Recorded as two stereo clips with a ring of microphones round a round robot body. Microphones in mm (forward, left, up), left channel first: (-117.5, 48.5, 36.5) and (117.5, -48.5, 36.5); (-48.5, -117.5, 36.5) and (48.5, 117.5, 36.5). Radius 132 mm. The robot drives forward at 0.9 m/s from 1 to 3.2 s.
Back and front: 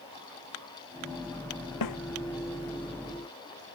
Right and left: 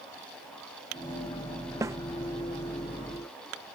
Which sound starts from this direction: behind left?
A snare drum, at 1.8 s.